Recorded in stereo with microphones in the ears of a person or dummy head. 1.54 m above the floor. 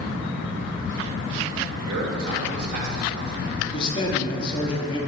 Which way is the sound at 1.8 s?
65° right (ahead or behind).